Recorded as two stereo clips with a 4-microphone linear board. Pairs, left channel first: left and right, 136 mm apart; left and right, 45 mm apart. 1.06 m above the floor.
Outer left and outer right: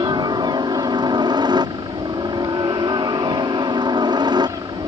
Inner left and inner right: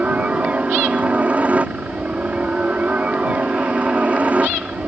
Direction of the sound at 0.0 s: 30° right (ahead or behind).